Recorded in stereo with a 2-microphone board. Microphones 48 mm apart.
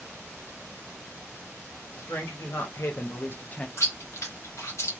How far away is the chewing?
About 0.9 m.